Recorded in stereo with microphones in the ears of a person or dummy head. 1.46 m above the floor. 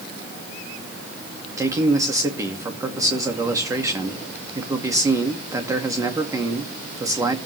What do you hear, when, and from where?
1.6 s a man speaking: 20° right (ahead or behind), 2.0 m